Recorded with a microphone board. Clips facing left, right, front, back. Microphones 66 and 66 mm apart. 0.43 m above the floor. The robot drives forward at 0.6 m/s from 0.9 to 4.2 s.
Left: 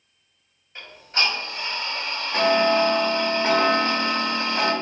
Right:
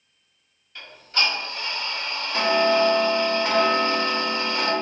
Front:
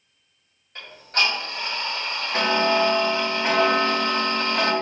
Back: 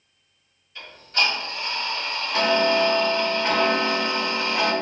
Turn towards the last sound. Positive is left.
turn(degrees=115)